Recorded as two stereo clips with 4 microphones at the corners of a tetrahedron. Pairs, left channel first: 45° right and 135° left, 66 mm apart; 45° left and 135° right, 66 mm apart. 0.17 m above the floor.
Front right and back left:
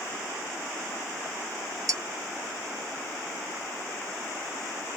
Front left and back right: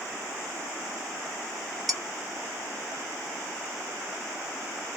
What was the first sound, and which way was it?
Dishes clattering, 130° left.